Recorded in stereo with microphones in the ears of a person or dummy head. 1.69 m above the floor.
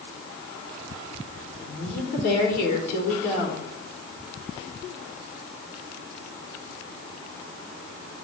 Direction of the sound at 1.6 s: 70° left (ahead or behind).